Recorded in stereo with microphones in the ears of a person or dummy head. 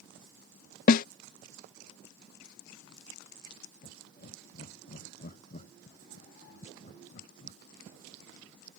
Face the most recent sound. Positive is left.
turn(degrees=40)  # may be behind; listen again after turning